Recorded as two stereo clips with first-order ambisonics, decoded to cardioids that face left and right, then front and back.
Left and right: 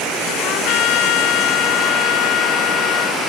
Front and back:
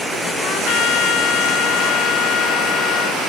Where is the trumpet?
50° left.